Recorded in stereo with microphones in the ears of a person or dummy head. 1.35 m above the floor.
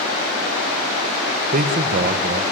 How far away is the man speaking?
About 1.1 m.